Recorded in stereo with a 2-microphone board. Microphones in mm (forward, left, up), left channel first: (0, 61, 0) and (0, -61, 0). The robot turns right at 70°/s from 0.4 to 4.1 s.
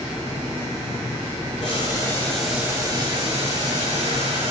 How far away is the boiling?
About 5.5 m.